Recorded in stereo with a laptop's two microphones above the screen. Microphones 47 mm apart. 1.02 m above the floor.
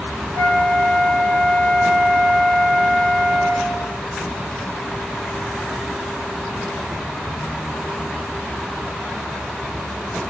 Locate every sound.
0.3 s a flute: 70° left (ahead or behind), 2 m